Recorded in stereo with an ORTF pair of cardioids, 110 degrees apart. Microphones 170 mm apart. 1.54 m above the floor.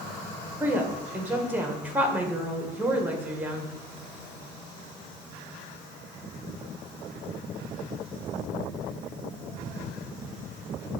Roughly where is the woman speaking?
Ahead.